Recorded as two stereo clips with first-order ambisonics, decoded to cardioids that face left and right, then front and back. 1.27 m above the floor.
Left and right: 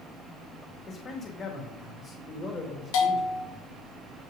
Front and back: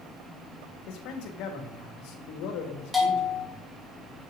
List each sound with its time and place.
0.9 s a man speaking: 25° left, 2 m
2.9 s a bell: 90° left, 2.5 m